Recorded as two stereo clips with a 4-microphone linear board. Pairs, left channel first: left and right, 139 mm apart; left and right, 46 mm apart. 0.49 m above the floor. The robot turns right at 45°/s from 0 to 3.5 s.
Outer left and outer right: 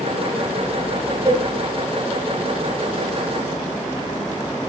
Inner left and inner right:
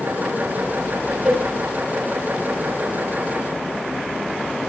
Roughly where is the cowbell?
Centre.